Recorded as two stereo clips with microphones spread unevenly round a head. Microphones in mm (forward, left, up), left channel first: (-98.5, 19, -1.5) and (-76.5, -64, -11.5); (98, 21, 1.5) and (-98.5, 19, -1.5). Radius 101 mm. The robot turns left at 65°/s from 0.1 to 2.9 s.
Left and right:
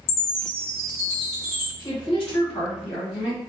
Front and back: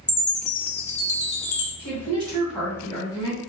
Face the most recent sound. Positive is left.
turn(degrees=70)